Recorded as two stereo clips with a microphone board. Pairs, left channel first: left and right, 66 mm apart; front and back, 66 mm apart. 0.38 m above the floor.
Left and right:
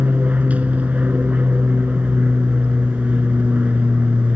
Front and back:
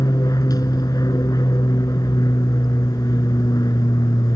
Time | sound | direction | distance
0.0 | an aircraft | 20° right | ?